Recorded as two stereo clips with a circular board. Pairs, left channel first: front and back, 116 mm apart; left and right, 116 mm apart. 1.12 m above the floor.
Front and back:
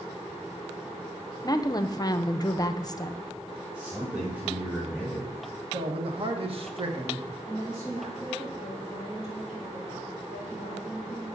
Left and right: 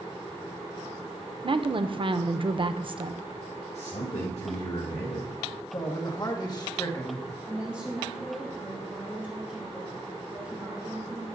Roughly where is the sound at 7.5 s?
Behind.